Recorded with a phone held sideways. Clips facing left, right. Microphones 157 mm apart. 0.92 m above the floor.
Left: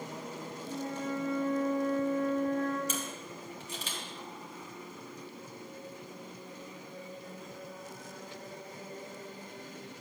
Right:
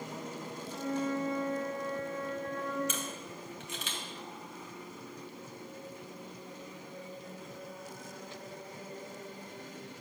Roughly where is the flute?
Left.